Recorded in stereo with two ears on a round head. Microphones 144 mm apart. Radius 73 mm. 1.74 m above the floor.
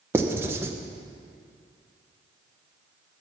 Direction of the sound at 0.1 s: 15° right (ahead or behind).